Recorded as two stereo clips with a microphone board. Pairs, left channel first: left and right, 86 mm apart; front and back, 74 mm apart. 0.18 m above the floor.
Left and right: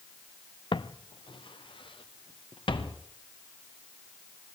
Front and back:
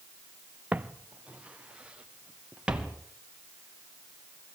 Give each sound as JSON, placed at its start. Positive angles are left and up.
{"t": 0.7, "sound": "footsteps", "azimuth_deg": 110, "distance_m": 0.8}